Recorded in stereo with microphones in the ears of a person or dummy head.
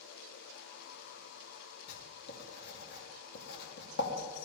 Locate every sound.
1.9 s writing: 60° left (ahead or behind), 3 m